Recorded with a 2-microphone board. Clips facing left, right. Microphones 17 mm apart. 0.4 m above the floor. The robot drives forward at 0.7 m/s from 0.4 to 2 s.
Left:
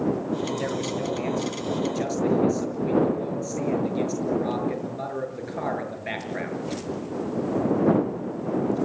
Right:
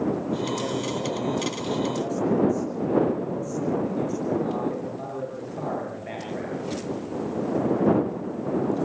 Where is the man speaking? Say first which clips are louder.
Even; 50° left (ahead or behind), 7.5 m; by 6.6 s 55° left (ahead or behind), 7 m.